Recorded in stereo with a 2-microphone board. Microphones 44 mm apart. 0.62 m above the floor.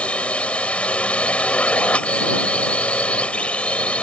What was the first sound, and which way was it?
A drone, 25° left (ahead or behind).